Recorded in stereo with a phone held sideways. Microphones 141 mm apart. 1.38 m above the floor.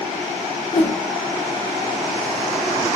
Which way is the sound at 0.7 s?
45° left (ahead or behind).